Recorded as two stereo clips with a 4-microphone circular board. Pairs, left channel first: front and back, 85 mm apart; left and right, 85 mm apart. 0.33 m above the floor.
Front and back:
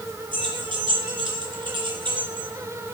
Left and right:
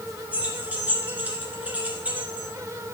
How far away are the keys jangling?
About 2.5 m.